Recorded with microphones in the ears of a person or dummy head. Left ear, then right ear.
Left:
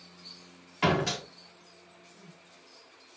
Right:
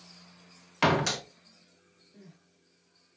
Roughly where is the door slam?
Right.